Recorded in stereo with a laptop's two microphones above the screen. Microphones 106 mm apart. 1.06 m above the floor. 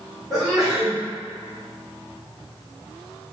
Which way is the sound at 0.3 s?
5° right (ahead or behind).